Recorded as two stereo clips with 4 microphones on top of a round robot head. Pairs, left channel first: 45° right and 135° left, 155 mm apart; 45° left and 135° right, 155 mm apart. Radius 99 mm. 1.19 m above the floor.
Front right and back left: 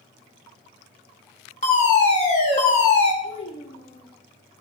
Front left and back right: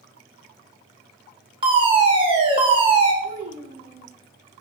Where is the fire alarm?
85° right, 3 m.